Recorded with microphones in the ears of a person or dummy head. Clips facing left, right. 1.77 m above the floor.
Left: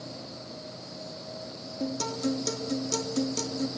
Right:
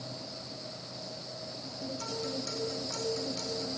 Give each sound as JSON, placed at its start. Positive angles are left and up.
{"t": 1.8, "sound": "a guitar", "side_deg": 70, "distance_m": 2.5}